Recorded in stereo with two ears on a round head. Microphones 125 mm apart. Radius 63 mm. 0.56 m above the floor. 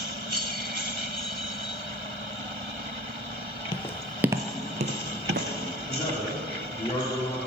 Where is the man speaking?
25° left (ahead or behind), 1.5 m.